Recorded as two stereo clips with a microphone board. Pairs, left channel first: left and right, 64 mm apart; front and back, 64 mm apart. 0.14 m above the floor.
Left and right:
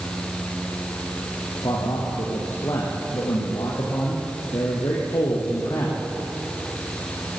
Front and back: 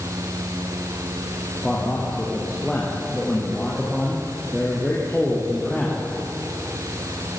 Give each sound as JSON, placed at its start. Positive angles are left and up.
{"t": 1.6, "sound": "a man speaking", "azimuth_deg": 80, "distance_m": 6.0}